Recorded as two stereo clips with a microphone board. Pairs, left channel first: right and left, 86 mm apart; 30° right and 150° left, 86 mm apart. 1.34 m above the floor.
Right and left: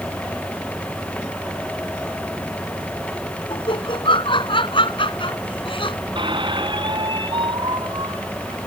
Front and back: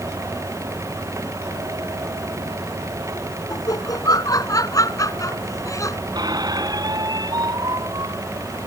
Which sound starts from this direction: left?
A squeak, at 6.2 s.